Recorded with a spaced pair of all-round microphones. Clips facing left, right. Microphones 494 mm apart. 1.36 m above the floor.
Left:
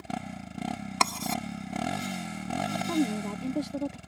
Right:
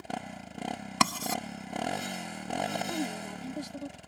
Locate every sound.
0.0 s a motorcycle: 25° left (ahead or behind)
1.0 s writing: 35° right (ahead or behind)
2.9 s a woman speaking: 75° left (ahead or behind)